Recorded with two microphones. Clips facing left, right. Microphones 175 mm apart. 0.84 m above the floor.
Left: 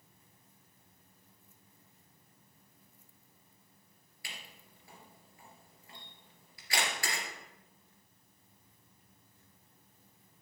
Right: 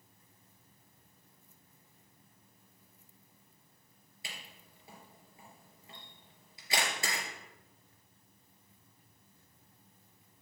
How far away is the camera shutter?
About 3 m.